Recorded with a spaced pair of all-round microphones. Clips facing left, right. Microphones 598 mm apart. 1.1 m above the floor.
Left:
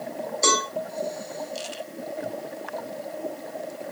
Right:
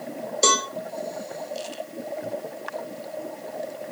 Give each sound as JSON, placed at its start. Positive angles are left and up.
{"t": 0.4, "sound": "a cowbell", "side_deg": -55, "distance_m": 0.8}